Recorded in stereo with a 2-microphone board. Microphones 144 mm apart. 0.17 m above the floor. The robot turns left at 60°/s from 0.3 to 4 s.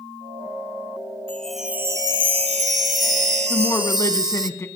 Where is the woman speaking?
25° left (ahead or behind), 1.3 m; by 4.7 s 20° left (ahead or behind), 1.3 m.